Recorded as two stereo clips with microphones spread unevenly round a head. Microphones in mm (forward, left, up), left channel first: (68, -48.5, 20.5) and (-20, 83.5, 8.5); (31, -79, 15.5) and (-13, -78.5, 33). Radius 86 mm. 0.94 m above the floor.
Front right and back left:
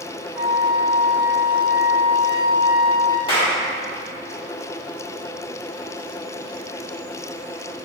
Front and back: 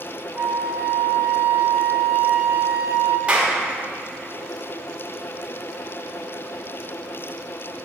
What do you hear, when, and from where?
0.3 s a flute: 175° right, 1.3 m
3.3 s a clap: 120° right, 2 m